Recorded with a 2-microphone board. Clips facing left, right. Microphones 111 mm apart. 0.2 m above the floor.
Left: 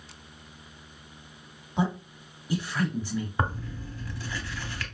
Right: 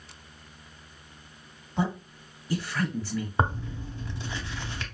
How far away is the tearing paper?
About 0.7 m.